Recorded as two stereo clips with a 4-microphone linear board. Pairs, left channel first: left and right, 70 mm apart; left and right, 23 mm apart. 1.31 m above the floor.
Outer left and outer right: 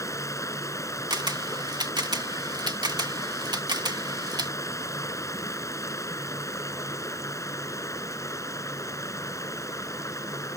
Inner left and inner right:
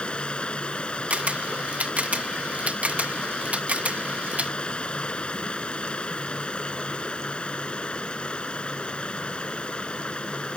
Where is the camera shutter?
85° right.